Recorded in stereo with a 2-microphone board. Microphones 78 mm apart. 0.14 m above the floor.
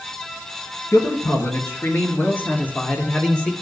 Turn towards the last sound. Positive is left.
turn(degrees=10)  # may be behind; listen again after turning